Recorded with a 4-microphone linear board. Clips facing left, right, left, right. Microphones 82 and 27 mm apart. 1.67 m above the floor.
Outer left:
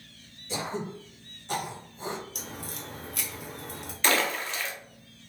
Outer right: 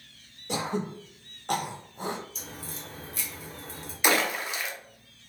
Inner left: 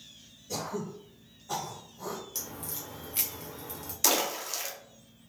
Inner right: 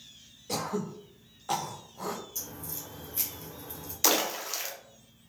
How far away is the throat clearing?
About 0.6 m.